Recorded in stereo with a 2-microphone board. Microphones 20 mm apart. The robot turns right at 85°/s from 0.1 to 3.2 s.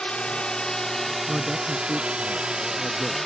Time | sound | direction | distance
0.0 | a drone | 65° left (ahead or behind) | ?
1.3 | a man speaking | 15° right (ahead or behind) | ?